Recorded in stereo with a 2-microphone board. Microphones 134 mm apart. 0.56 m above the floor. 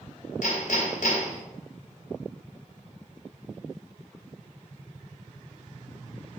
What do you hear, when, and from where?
0.4 s hammering: 75° left (ahead or behind), 1.8 m